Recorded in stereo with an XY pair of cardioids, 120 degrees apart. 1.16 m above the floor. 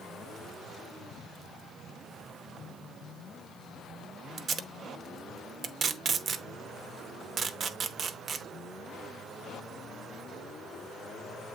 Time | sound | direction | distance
4.4 | tape being pulled | 40° right | 0.9 m